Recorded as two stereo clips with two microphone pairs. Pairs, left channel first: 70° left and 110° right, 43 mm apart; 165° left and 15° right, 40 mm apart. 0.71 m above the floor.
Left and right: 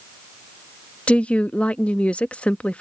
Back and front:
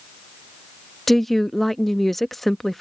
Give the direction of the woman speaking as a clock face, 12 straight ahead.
9 o'clock.